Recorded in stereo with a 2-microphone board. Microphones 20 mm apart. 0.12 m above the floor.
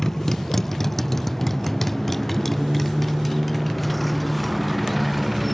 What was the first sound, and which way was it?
A motorcycle, 20° left (ahead or behind).